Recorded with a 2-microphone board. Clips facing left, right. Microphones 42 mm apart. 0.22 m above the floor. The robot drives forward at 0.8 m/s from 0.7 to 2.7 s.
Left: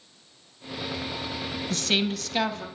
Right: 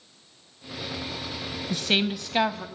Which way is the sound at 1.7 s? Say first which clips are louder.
Right 1 dB; 15° right (ahead or behind).